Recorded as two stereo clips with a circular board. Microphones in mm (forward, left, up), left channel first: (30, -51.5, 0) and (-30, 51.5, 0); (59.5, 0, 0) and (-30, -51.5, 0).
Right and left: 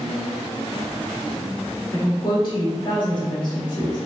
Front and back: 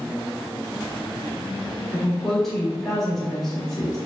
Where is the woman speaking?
55° right, 1.0 m.